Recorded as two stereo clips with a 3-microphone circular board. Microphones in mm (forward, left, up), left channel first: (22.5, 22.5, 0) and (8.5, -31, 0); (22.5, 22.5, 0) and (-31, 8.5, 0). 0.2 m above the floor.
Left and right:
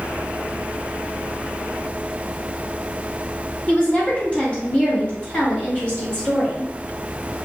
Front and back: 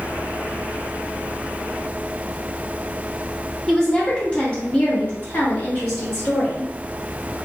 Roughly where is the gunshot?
I don't hear a gunshot.